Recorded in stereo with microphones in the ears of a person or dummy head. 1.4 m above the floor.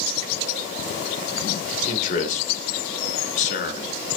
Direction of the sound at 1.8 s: 40° left (ahead or behind).